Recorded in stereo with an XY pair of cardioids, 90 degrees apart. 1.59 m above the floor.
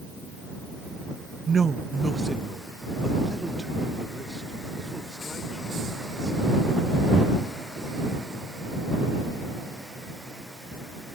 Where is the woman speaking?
50° right; by 7.5 s 5° right.